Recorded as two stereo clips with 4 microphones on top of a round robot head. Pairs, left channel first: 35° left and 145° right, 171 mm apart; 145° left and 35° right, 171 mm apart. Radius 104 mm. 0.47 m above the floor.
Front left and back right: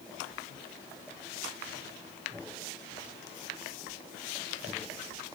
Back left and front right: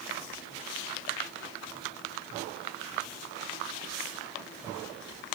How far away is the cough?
No cough in this recording.